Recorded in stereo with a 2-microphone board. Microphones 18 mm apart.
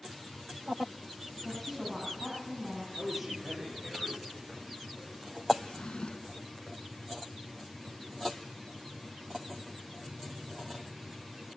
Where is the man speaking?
15° right (ahead or behind), 9 m.